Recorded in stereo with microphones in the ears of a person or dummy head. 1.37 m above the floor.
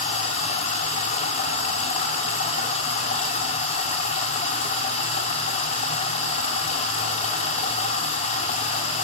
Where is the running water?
45° left (ahead or behind), 2 m.